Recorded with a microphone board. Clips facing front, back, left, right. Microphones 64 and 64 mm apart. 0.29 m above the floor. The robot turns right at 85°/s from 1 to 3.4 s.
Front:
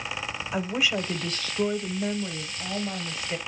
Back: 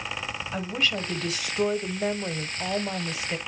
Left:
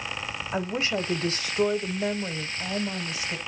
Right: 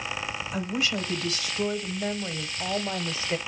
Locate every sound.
0.5 s a woman speaking: 75° left, 1.0 m; by 3.4 s 85° right, 1.0 m